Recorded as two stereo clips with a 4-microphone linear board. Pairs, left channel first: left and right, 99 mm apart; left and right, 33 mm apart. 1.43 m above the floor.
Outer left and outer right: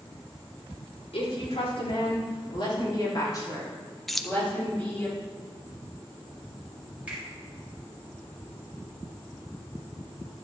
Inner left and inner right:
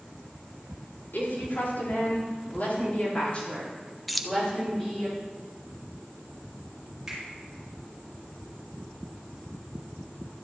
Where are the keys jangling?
Centre (ahead or behind), 0.6 m.